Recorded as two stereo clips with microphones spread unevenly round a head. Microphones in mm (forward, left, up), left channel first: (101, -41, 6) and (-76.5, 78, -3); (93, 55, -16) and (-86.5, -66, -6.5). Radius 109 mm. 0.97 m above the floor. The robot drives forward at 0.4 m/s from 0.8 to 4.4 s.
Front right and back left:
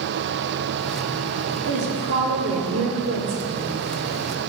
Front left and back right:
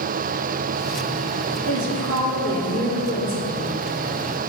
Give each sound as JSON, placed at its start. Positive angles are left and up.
{"t": 1.7, "sound": "a woman speaking", "azimuth_deg": -175, "distance_m": 2.5}